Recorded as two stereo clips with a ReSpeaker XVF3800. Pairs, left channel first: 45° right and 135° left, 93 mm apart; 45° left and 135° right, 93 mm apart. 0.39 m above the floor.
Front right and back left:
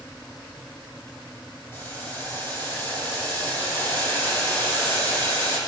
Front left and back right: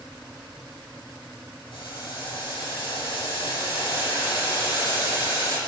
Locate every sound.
1.7 s boiling: 20° left, 8.5 m